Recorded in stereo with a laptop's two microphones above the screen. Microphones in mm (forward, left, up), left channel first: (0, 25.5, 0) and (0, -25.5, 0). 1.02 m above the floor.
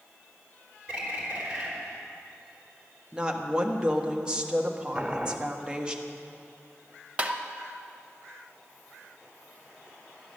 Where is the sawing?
I don't hear sawing.